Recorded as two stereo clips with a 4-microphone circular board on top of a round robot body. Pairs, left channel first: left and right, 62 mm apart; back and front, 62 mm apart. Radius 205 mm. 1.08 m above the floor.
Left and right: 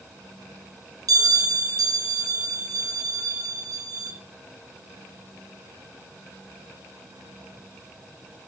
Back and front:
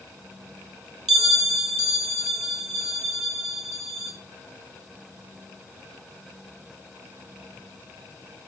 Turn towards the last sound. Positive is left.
turn(degrees=-90)